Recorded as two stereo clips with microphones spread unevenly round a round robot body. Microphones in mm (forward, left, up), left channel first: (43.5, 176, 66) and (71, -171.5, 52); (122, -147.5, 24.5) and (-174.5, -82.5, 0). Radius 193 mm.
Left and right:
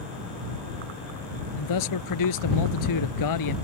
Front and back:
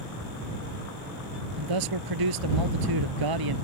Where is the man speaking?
135° left.